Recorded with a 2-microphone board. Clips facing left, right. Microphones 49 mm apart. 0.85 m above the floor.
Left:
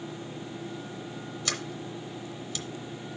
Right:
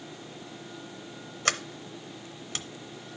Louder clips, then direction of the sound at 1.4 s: Right 6 dB; 50° right (ahead or behind).